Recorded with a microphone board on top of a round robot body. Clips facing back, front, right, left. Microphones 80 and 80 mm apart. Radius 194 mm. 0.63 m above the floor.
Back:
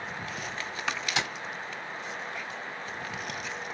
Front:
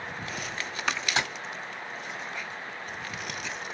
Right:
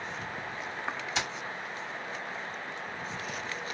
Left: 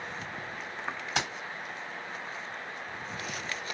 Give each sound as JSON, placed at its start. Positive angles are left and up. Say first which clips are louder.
{"t": 1.1, "sound": "keys jangling", "louder": "front 2 dB, left 3 dB", "azimuth_deg": 55, "distance_m": 2.0}